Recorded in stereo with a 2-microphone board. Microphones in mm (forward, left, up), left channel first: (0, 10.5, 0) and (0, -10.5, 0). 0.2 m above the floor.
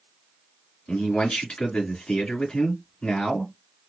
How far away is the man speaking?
About 3 m.